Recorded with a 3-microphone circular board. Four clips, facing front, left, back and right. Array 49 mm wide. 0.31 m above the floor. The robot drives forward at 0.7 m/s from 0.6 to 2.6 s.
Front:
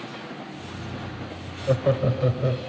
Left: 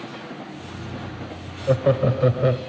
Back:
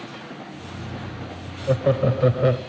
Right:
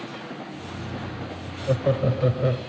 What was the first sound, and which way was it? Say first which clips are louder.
Laughter: left 4 dB, back 2 dB; 90° left.